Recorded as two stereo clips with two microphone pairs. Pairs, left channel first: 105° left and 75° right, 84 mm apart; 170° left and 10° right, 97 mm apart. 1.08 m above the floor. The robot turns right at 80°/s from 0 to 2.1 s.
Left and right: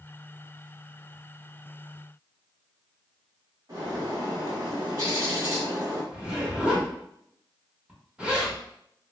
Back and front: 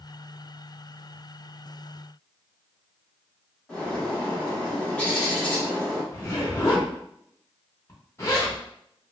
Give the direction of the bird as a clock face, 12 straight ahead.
4 o'clock.